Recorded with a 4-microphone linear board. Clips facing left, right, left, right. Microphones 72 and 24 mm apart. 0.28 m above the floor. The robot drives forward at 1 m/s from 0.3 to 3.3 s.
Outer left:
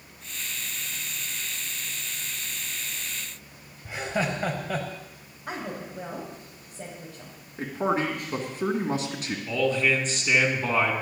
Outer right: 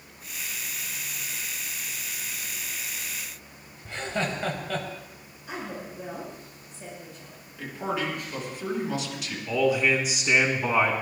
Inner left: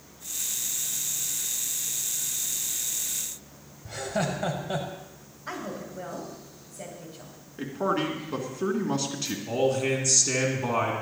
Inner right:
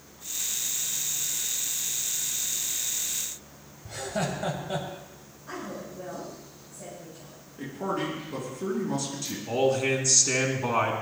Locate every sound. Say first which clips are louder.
3.9 s laughter: outer left 2 dB, inner left 2 dB; 10° left (ahead or behind), 1.3 m
5.5 s a woman speaking: outer left 1 dB, inner left 2 dB; 75° left (ahead or behind), 6.5 m
7.6 s a man speaking: outer left 4 dB, inner left 3 dB; 40° left (ahead or behind), 3 m
9.5 s a man speaking: outer right 2 dB, inner right 1 dB; 10° right (ahead or behind), 3 m